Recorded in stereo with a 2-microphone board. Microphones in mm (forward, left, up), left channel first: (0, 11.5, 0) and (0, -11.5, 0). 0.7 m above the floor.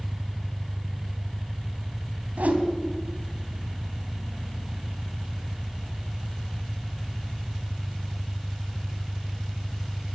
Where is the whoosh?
85° right, 3 m.